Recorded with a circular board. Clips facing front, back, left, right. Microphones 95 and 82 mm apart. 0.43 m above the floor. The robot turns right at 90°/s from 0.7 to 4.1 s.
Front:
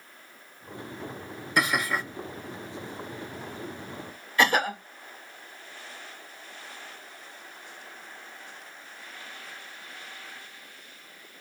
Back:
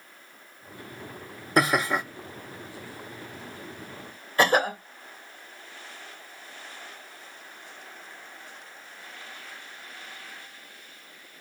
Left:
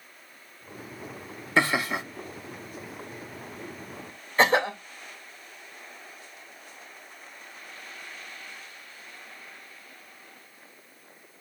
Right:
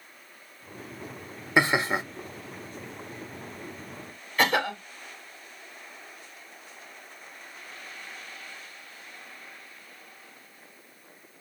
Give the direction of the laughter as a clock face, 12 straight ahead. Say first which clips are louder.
Back 4 dB, right 1 dB; 5 o'clock.